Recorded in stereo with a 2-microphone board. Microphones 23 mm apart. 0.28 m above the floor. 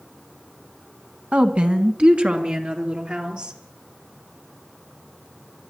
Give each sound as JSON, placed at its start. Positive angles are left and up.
{"t": 1.3, "sound": "a woman speaking", "side_deg": -65, "distance_m": 2.0}